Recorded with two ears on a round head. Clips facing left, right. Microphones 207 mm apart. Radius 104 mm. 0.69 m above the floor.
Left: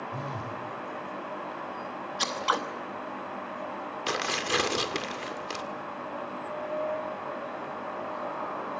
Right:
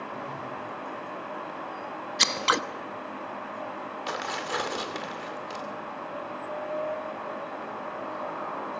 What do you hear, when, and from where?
0.1 s a phone buzzing: 75° left (ahead or behind), 4 m
2.2 s scissors: 30° right (ahead or behind), 1.0 m
4.1 s tearing paper: 40° left (ahead or behind), 2 m